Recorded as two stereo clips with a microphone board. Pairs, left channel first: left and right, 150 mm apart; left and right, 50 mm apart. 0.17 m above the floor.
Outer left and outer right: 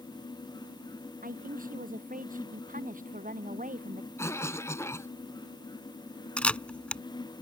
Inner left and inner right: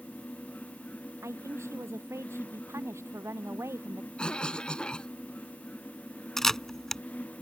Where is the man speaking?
70° right (ahead or behind); by 4.1 s 60° right (ahead or behind).